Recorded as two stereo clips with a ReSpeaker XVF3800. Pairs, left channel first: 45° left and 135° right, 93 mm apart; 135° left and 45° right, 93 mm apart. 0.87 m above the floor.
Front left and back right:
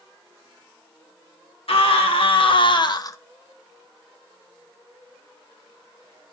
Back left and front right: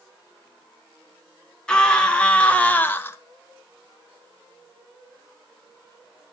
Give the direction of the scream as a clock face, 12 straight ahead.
10 o'clock.